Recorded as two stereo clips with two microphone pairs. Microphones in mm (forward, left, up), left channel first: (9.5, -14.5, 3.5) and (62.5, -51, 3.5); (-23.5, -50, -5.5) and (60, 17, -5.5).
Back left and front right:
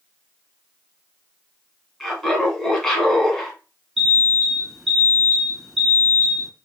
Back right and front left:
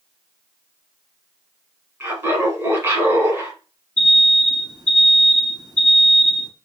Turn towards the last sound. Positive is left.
turn(degrees=40)